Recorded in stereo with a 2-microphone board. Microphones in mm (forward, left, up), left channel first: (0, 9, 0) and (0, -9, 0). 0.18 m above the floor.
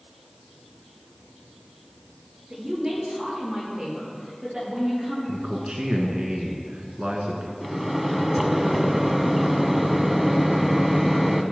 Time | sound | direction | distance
2.5 | a woman speaking | 30° right (ahead or behind) | 4 m
5.3 | a man speaking | 55° right (ahead or behind) | 1.6 m
7.6 | a microwave | 10° right (ahead or behind) | 0.9 m